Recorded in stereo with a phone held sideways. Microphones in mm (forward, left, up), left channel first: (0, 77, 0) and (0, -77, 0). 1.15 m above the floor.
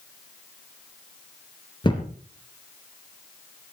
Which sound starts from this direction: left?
A thud, at 1.8 s.